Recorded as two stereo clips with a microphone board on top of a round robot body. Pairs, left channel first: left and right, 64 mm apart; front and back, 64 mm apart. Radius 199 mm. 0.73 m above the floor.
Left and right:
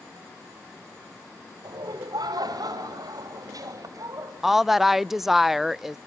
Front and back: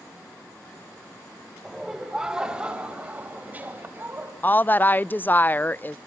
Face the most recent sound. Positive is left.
turn(degrees=-10)